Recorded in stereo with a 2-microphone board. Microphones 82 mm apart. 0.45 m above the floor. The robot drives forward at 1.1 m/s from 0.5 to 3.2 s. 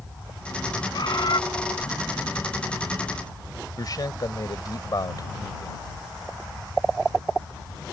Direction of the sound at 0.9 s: 55° left (ahead or behind).